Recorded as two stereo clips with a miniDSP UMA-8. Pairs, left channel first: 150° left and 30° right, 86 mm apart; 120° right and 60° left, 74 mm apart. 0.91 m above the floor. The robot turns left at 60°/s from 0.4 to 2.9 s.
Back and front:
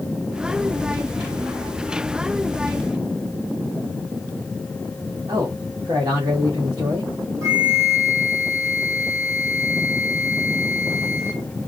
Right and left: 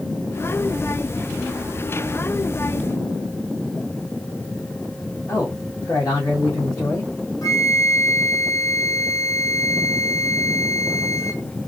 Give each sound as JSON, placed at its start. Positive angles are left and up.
{"t": 5.3, "sound": "a man speaking", "azimuth_deg": -80, "distance_m": 1.4}
{"t": 7.4, "sound": "a flute", "azimuth_deg": -80, "distance_m": 1.5}